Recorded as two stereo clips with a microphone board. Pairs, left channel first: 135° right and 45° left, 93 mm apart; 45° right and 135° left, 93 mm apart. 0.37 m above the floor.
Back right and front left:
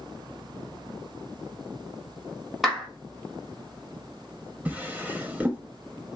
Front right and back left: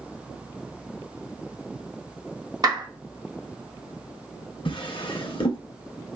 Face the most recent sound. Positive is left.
turn(degrees=-30)